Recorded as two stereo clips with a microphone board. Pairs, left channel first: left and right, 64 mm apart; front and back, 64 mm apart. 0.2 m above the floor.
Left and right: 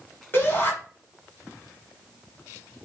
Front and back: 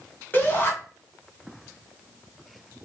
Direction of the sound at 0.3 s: 50° left.